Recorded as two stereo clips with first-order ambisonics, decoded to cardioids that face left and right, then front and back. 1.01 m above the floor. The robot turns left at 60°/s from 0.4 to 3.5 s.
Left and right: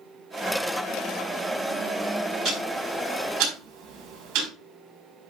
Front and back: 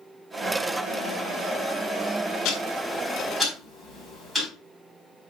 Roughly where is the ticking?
Ahead right.